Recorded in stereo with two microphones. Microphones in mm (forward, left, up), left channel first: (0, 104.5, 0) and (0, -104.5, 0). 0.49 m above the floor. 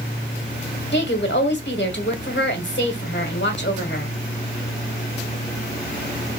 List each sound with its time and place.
0.9 s a woman speaking: 60° left (ahead or behind), 1.4 m